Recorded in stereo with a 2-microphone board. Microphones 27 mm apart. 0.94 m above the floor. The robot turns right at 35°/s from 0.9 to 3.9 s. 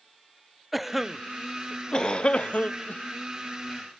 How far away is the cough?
About 0.5 m.